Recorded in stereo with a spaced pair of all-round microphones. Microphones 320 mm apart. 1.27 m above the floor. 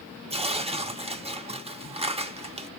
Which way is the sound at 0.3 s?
20° right (ahead or behind).